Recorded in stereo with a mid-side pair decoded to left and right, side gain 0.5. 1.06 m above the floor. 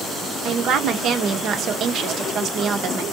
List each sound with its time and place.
0.5 s a woman speaking: 60° right, 0.7 m